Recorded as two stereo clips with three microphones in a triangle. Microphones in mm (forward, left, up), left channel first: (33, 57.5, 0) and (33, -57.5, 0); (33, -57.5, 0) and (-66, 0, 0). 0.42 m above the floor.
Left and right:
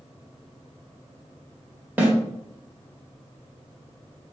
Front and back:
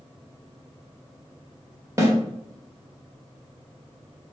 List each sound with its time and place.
2.0 s a snare drum: 160° right, 1.2 m